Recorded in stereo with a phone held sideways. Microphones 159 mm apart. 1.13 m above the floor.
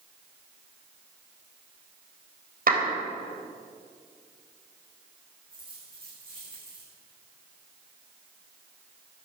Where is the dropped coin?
35° right (ahead or behind), 7.5 m.